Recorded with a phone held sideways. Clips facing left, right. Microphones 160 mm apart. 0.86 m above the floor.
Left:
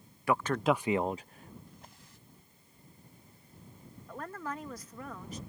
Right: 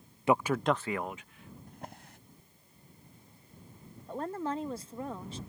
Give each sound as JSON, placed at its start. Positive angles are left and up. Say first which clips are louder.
{"t": 0.3, "sound": "a man speaking", "louder": "right 1 dB", "side_deg": -25}
{"t": 1.7, "sound": "a drawer", "louder": "right 8 dB", "side_deg": -65}
{"t": 4.1, "sound": "a woman speaking", "louder": "right 6 dB", "side_deg": -30}